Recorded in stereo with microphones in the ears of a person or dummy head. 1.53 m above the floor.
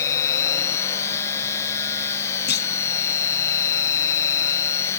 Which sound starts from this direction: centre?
A machine running, at 0.0 s.